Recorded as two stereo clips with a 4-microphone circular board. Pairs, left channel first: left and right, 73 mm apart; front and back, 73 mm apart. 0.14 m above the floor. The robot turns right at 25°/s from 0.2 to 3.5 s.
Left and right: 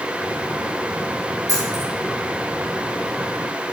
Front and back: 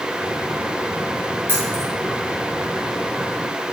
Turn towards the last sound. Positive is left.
turn(degrees=-70)